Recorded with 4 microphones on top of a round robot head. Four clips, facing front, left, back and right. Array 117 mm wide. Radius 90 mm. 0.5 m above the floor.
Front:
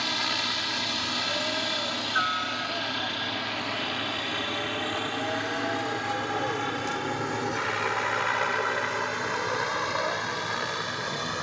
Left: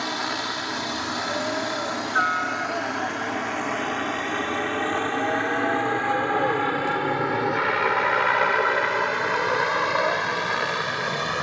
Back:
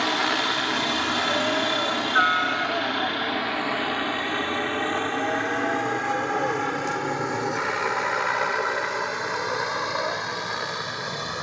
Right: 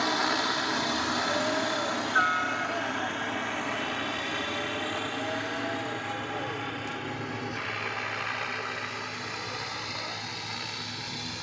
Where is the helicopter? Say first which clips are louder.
Right 1 dB, back 7 dB; 175° right; by 11.4 s 95° left.